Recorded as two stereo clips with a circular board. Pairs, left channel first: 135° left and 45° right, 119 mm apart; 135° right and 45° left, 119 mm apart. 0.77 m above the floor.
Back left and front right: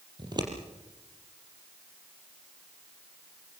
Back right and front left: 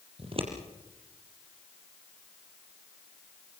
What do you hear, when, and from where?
0.2 s scissors: 10° left, 5 m